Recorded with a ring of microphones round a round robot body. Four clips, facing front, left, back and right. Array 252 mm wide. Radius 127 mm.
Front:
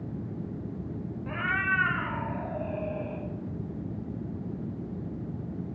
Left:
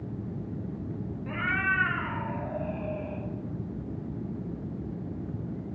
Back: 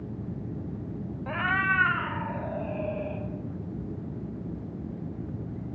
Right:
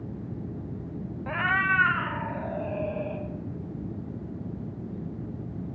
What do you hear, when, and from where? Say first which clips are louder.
1.3 s a cat meowing: right 4 dB, back 3 dB; 125° right, 0.9 m; by 3.2 s 120° right, 4 m